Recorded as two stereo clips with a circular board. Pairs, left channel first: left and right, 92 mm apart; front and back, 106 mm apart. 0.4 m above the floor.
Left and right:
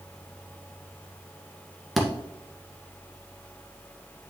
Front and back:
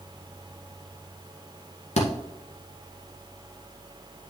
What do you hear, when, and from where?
2.0 s a thud: straight ahead, 1.6 m